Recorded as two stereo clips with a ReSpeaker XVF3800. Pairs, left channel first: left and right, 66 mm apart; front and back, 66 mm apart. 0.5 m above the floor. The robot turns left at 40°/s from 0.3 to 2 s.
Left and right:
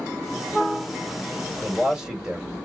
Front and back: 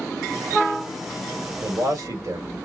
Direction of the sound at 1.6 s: 150° right.